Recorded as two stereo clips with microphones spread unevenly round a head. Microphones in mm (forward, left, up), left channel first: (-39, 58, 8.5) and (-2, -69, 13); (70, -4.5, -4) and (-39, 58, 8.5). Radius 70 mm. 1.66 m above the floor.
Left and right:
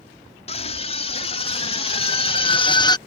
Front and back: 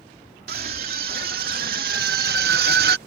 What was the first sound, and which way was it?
A scream, 150° left.